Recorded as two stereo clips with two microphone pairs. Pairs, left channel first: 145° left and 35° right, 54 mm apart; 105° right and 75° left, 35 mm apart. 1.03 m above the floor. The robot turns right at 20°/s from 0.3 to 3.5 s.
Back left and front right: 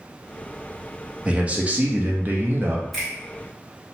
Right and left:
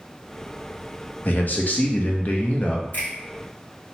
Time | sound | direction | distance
1.2 | a man speaking | 100° right | 0.6 m
2.9 | a finger snap | 130° right | 1.3 m